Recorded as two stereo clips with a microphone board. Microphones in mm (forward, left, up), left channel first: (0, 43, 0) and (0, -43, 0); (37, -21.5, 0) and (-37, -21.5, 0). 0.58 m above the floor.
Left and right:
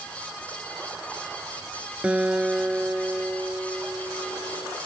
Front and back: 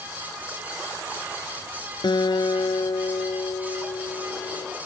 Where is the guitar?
15° right.